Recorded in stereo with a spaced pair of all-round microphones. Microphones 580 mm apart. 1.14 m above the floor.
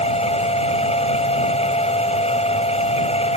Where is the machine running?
10° left (ahead or behind).